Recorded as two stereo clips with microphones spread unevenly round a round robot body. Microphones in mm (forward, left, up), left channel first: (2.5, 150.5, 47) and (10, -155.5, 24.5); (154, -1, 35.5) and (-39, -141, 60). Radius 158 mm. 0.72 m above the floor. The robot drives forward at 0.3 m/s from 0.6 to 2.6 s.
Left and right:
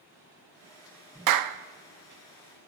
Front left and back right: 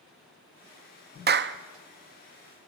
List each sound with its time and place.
1.3 s a clap: 90° right, 0.5 m; by 1.6 s 105° right, 0.6 m